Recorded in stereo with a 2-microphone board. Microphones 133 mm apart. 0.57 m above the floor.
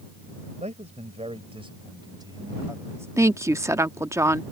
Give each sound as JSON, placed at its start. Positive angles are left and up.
{"t": 0.6, "sound": "a man speaking", "side_deg": -60}
{"t": 3.2, "sound": "a woman speaking", "side_deg": -20}